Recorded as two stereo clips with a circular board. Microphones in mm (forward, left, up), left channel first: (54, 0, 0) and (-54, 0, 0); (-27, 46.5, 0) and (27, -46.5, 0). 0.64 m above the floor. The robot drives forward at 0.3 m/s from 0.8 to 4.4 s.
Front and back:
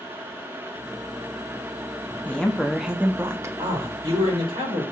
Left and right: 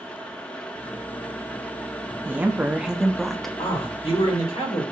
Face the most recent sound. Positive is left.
turn(degrees=145)